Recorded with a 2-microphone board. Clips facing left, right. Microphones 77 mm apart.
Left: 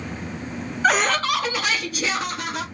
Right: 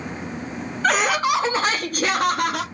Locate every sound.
0.8 s laughter: 5° left (ahead or behind), 0.6 m; by 2.6 s 65° right (ahead or behind), 1.0 m